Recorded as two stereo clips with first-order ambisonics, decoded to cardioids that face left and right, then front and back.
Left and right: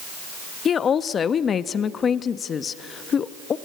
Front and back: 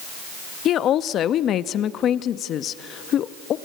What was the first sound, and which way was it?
A woman speaking, 35° left.